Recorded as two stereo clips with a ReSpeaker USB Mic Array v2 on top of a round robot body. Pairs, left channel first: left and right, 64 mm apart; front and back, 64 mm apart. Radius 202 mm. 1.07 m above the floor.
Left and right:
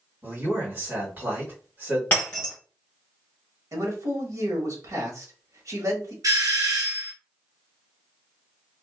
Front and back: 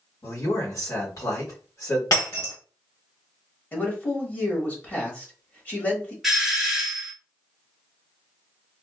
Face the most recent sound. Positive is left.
turn(degrees=-95)